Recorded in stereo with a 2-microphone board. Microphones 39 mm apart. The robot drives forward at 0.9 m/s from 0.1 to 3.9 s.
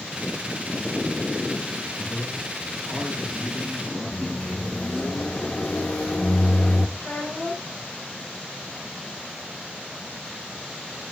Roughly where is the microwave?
Left.